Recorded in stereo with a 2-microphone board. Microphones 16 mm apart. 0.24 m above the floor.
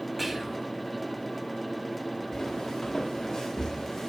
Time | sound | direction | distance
0.2 | whispering | 5° right (ahead or behind) | 1.2 m
2.3 | footsteps | 45° left (ahead or behind) | 1.7 m